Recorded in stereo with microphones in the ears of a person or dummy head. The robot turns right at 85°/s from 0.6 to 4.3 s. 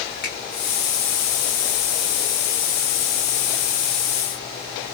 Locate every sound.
0.2 s a finger snap: 45° left (ahead or behind), 1.4 m